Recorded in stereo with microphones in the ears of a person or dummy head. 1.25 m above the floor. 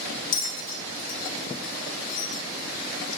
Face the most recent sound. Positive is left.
turn(degrees=45)  # may be behind; listen again after turning